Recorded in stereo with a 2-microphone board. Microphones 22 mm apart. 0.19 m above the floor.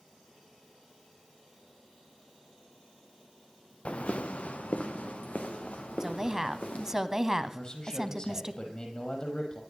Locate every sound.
3.9 s footsteps: 65° left (ahead or behind), 0.9 m; by 7.0 s 85° left, 4.5 m
6.0 s a woman speaking: 20° right (ahead or behind), 1.0 m
7.5 s a man speaking: 40° left (ahead or behind), 5.5 m